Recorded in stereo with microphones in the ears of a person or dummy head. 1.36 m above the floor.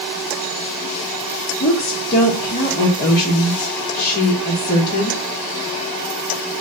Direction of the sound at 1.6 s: 55° left (ahead or behind).